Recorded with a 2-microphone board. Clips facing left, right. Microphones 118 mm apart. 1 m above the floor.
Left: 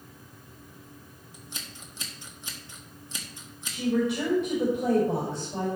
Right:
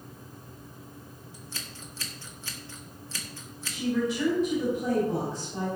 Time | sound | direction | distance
1.3 | scissors | 20° left (ahead or behind) | 1.7 m
3.7 | a woman speaking | 70° left (ahead or behind) | 5.5 m